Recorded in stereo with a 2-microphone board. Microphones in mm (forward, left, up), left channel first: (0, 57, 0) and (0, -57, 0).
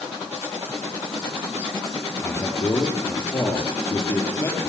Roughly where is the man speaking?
Left.